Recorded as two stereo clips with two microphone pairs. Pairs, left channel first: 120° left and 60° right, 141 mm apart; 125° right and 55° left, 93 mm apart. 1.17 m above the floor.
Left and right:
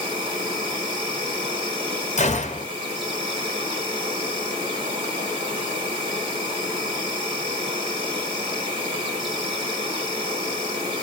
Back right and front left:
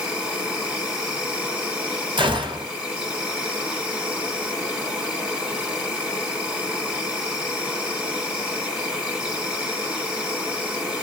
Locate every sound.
0.0 s an insect: 25° right, 1.8 m
2.2 s a gunshot: 85° left, 0.9 m